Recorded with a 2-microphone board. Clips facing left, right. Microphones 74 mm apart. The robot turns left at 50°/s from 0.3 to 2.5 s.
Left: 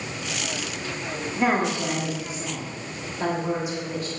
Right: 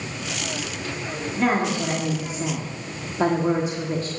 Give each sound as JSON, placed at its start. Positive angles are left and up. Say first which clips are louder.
{"t": 1.4, "sound": "a woman speaking", "louder": "right 1 dB", "azimuth_deg": 15, "distance_m": 1.4}